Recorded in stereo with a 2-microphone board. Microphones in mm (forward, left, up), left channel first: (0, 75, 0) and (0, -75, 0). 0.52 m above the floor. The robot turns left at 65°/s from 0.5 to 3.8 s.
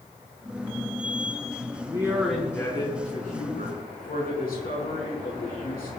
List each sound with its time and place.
1.8 s a man speaking: 150° right, 5 m; by 5.9 s 85° left, 5 m